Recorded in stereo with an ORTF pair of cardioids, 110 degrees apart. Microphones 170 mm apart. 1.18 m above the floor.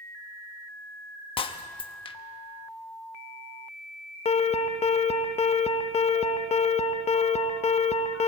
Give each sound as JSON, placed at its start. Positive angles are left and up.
{"t": 1.4, "sound": "breaking glass", "azimuth_deg": 30, "distance_m": 1.1}
{"t": 4.2, "sound": "an alarm", "azimuth_deg": 40, "distance_m": 1.2}